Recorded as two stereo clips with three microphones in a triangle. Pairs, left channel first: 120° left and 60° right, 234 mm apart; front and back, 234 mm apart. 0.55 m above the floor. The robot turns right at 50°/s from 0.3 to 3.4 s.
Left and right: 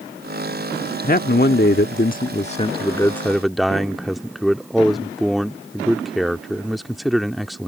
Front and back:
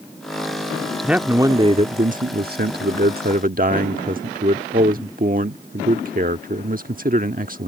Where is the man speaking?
95° left; by 7.7 s 150° right.